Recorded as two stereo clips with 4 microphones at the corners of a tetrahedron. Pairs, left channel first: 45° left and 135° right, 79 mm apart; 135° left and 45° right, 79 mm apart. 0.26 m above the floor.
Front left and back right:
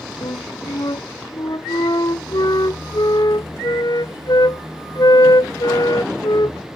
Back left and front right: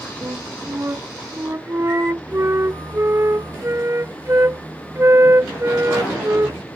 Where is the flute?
10° left.